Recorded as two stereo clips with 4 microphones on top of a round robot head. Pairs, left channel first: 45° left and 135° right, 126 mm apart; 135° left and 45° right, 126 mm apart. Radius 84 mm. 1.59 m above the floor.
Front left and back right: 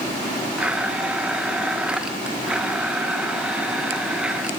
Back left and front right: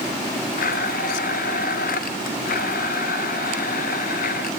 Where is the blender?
140° left, 2 m.